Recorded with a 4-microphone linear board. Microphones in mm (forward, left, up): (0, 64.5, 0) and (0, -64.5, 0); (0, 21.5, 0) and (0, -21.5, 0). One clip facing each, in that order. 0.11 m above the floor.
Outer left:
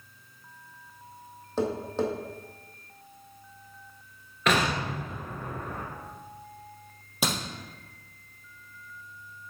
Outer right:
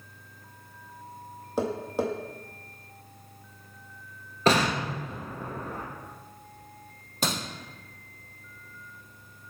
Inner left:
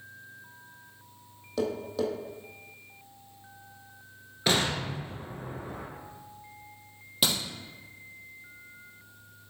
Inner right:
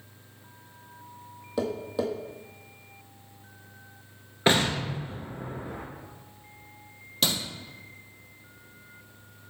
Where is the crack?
10° left (ahead or behind), 3 m.